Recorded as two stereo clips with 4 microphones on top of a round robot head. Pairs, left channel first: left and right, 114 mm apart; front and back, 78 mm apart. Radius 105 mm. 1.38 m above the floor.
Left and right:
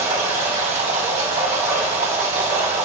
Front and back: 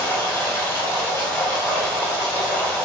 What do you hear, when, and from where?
0.0 s running water: 65° right, 5.5 m